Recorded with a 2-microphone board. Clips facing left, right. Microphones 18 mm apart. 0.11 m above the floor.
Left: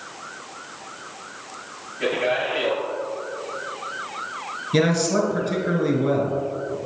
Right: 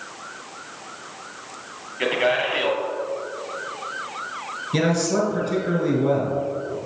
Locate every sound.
2.0 s a man speaking: 50° right (ahead or behind), 2 m
4.7 s a man speaking: 10° left (ahead or behind), 1.4 m